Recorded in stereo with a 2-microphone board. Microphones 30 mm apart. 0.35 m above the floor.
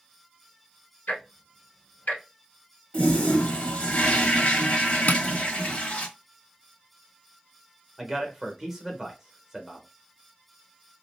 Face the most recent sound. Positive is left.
turn(degrees=-10)  # may be behind; listen again after turning